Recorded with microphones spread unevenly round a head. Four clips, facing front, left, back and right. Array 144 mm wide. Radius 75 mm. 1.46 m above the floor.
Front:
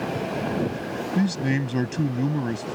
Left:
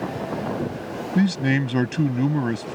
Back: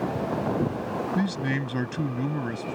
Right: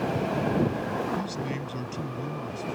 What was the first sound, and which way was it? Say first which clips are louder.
A man speaking: left 10 dB, front 7 dB; 80° left.